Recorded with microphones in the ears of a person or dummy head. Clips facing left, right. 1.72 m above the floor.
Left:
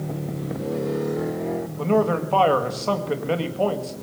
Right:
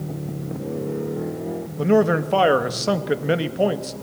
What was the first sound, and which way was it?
A man speaking, 20° right (ahead or behind).